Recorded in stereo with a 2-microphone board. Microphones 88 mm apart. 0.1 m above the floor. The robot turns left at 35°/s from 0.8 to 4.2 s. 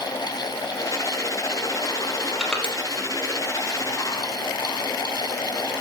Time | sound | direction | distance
2.4 | crushing | centre (ahead or behind) | 3.5 m